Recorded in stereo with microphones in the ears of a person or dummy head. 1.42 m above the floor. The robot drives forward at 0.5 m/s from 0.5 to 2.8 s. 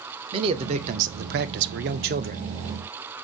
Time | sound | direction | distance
0.3 | a man speaking | 30° right (ahead or behind) | 0.7 m